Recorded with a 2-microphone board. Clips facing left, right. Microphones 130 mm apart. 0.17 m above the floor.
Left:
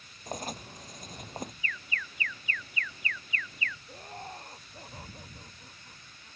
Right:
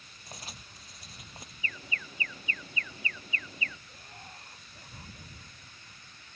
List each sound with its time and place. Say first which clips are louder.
0.3 s writing: left 11 dB; 45° left (ahead or behind)
1.6 s an alarm: left 1 dB; 30° right (ahead or behind)
3.9 s laughter: left 8 dB; 40° left (ahead or behind)